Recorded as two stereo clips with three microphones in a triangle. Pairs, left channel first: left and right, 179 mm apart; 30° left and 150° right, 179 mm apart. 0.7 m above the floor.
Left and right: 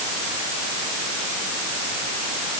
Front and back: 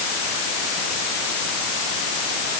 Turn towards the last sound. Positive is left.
No sound to turn to.